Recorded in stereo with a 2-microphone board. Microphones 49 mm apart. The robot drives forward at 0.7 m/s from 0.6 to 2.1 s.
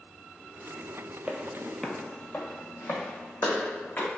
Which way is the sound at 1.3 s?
25° right (ahead or behind).